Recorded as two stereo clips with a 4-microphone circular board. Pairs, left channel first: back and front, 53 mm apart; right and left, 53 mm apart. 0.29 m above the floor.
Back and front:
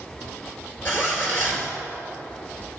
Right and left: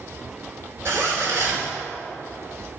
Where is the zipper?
135° left, 3.5 m.